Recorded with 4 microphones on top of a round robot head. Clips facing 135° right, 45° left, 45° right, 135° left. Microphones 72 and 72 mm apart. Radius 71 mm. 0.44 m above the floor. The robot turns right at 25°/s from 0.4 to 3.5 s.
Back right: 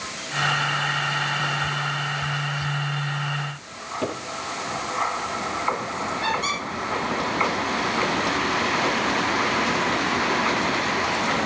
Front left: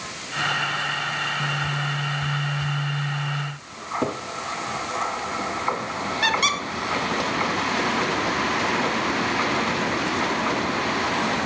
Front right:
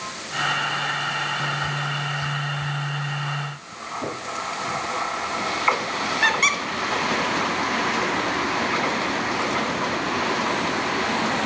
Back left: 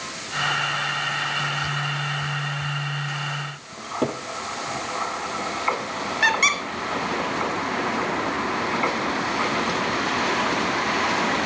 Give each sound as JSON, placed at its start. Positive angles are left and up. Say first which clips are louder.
{"t": 3.8, "sound": "a cupboard door", "louder": "front left 3 dB, back left 4 dB", "azimuth_deg": 105, "distance_m": 8.5}
{"t": 6.2, "sound": "a squeak", "louder": "front left 4 dB, back left 1 dB", "azimuth_deg": 45, "distance_m": 3.0}